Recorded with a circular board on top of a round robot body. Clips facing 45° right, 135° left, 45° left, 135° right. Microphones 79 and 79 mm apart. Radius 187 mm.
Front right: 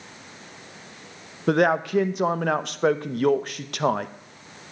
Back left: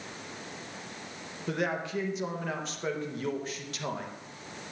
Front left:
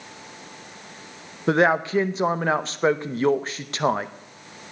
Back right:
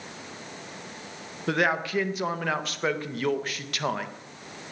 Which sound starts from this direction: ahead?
A man speaking, at 1.5 s.